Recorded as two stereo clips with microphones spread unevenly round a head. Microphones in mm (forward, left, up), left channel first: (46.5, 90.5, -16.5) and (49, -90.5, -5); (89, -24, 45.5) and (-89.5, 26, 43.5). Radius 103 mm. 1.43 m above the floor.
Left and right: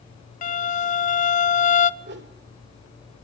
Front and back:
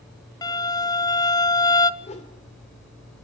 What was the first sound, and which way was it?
A violin, 55° left.